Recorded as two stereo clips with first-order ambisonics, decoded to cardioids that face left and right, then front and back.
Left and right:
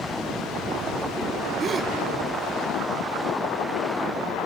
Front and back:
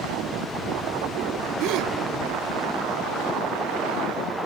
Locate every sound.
1.6 s a gasp: 160° right, 0.6 m